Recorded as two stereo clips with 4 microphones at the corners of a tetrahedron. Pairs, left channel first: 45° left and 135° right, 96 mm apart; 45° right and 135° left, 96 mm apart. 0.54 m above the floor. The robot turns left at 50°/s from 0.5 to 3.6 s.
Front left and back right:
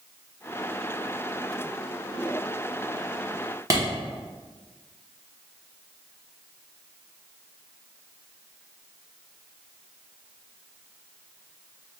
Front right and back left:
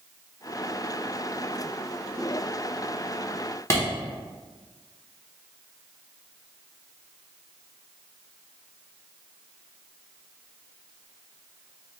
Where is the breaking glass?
I don't hear breaking glass.